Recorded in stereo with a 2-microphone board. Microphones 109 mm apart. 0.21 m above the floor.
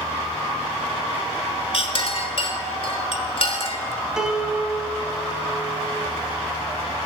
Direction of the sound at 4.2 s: 5° right (ahead or behind).